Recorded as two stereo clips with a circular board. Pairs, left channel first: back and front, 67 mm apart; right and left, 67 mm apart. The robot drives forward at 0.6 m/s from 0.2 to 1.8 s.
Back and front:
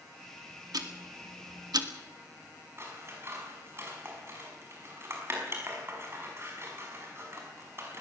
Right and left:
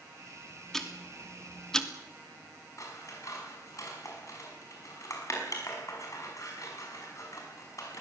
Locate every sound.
0.7 s ticking: 5° right, 2 m; by 1.9 s 10° right, 1.6 m
2.8 s scissors: 55° right, 5.5 m